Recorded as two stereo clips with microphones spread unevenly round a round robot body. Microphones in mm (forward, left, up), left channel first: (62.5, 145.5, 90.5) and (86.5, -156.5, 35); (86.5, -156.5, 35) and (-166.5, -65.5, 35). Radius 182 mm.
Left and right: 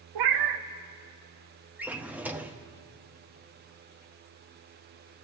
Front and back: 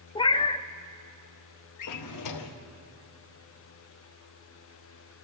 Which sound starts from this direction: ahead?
A drawer, at 1.8 s.